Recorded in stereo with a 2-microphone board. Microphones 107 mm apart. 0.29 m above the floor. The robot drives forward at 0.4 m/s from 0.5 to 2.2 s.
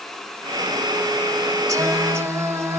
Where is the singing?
30° right (ahead or behind), 0.8 m; by 2.8 s 25° right (ahead or behind), 0.9 m.